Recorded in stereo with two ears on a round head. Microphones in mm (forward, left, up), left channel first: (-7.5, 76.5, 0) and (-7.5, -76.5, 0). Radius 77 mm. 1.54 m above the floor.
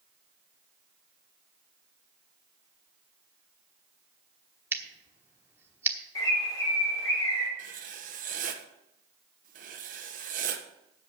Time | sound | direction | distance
4.7 | scissors | 15° right (ahead or behind) | 1.1 m
6.2 | a bird | 20° left (ahead or behind) | 4 m
7.6 | writing | 50° right (ahead or behind) | 1.2 m